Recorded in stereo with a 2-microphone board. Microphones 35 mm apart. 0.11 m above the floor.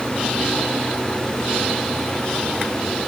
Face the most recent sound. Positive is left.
No sound to turn to.